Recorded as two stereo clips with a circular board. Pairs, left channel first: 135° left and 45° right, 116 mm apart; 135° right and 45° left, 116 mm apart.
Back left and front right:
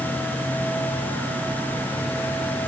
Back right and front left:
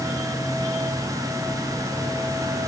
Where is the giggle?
No giggle in this recording.